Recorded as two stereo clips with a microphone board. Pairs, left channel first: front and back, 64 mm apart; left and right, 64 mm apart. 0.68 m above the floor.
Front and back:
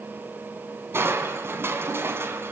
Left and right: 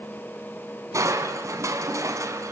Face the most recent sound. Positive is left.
turn(degrees=-125)